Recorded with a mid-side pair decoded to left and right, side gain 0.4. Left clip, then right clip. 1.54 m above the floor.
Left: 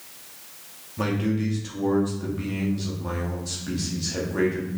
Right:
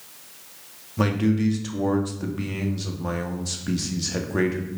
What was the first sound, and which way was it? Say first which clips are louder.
A man speaking: right 3 dB; 45° right.